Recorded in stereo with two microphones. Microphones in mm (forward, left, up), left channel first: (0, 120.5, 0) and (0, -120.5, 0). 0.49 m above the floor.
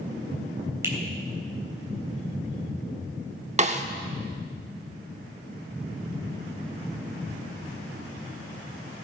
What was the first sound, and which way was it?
A finger snap, 10° right (ahead or behind).